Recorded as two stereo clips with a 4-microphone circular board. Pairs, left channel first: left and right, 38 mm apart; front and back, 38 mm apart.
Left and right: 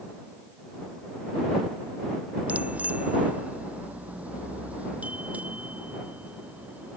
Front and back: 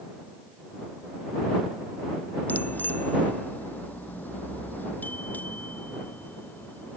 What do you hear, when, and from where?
2.5 s a bicycle bell: 40° right